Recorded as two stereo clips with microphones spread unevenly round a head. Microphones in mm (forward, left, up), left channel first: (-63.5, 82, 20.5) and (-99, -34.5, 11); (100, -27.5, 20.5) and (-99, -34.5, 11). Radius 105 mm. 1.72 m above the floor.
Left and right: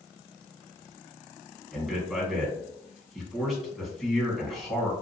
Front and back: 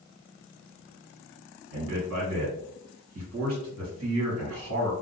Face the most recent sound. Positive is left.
turn(degrees=165)